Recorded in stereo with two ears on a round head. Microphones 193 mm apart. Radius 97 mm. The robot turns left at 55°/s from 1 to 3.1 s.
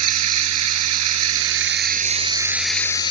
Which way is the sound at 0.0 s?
85° right.